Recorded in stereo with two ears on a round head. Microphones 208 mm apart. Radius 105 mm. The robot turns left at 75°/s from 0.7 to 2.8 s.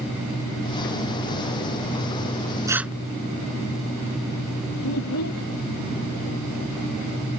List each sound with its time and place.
2.7 s tearing paper: 15° right (ahead or behind); by 2.9 s 5° right (ahead or behind)
4.8 s a child speaking: 70° left (ahead or behind)